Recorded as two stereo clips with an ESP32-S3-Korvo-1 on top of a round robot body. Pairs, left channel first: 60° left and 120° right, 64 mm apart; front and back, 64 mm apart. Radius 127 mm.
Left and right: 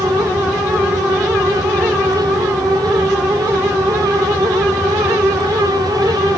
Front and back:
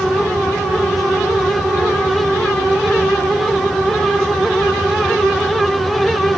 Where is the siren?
No siren in this recording.